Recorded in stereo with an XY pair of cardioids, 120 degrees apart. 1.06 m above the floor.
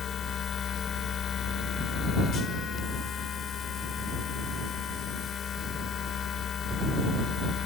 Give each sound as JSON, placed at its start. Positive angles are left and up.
{"t": 0.0, "sound": "a machine running", "azimuth_deg": 50}